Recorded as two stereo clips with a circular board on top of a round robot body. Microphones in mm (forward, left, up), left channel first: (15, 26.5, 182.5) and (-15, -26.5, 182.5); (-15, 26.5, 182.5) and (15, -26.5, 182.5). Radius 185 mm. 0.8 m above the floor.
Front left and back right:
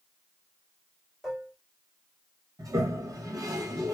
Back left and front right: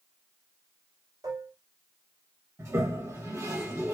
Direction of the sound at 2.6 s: 100° right.